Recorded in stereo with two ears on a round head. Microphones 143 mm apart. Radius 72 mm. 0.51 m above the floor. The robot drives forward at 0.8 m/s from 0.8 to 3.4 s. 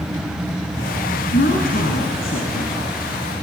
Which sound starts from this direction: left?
A woman speaking, at 1.3 s.